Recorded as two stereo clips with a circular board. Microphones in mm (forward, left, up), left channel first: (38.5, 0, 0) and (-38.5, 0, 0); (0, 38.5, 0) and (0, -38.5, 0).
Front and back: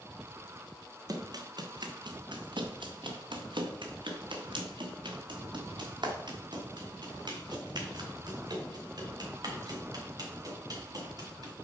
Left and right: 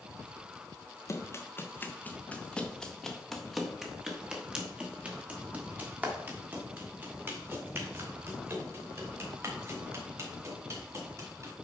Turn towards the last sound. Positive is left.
turn(degrees=-140)